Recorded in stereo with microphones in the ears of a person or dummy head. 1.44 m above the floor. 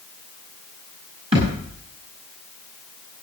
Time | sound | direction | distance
1.3 | a thud | 35° right (ahead or behind) | 7 m